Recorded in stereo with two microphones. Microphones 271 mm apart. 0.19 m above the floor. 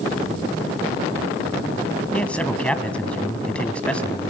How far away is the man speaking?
About 1.3 m.